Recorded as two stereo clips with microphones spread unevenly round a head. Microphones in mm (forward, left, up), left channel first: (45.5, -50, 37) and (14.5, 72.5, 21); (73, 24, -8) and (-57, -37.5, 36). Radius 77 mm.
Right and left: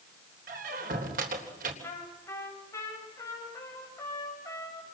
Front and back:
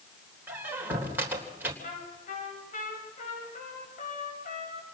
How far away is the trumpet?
About 8.5 m.